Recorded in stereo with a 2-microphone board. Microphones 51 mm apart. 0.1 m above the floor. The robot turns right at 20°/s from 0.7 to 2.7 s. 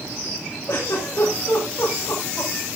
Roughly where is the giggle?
Left.